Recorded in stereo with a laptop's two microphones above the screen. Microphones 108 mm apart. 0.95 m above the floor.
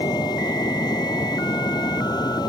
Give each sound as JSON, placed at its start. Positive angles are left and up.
{"t": 0.0, "sound": "a fan", "side_deg": 40}